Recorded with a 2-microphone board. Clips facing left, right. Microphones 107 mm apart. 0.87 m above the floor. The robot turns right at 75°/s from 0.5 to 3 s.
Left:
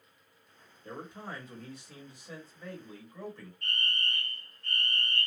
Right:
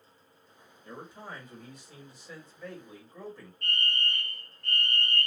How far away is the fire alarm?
About 2.5 m.